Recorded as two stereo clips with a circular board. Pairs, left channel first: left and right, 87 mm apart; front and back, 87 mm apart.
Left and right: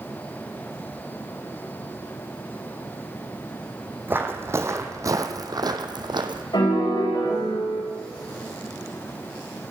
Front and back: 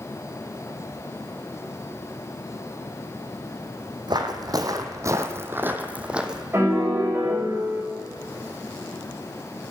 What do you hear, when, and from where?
4.1 s footsteps: 155° right, 1.5 m; by 6.4 s 100° right, 1.4 m
6.5 s a piano: 120° left, 3.5 m